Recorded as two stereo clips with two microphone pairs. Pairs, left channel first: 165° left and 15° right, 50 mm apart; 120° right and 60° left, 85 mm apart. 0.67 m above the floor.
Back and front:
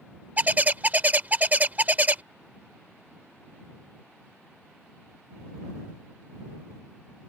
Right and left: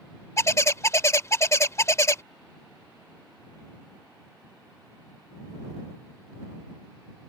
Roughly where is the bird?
Ahead right.